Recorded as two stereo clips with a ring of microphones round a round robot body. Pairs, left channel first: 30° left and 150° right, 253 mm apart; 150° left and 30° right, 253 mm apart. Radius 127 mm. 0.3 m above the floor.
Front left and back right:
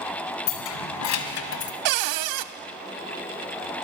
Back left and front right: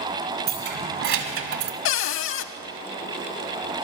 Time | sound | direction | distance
0.5 | keys jangling | 25° left | 2 m
1.9 | a cupboard door | 165° right | 0.6 m